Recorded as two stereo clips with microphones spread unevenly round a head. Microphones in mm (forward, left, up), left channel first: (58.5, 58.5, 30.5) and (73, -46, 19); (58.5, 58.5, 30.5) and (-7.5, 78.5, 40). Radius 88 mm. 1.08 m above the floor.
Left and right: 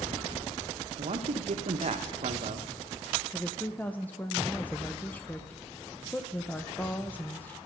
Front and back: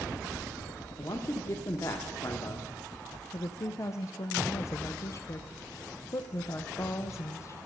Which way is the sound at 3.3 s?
20° left.